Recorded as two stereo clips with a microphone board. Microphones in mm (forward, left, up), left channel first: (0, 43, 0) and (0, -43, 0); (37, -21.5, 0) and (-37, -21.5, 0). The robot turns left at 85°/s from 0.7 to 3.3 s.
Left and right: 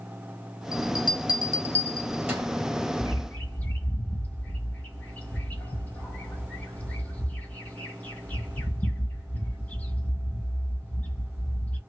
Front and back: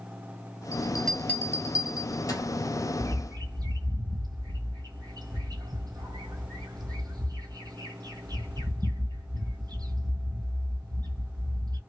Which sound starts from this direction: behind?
A bird, at 3.0 s.